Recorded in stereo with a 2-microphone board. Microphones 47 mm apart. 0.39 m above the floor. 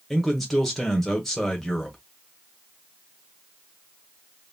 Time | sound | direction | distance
0.1 | a man speaking | 5° left (ahead or behind) | 0.9 m